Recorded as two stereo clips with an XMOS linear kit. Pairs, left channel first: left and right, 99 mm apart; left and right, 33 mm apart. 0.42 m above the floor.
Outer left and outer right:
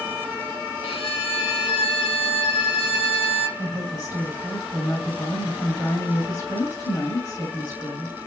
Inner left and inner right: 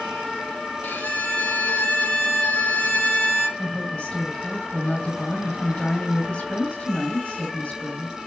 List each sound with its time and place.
0.8 s a violin: 85° left, 2.5 m
3.6 s a woman speaking: 30° left (ahead or behind), 2.5 m